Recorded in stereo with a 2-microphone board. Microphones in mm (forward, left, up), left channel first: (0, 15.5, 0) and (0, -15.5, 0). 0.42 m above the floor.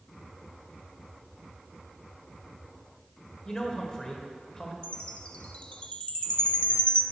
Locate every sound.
3.5 s a man speaking: 25° left (ahead or behind), 1.4 m
4.8 s a chime: 40° left (ahead or behind), 0.6 m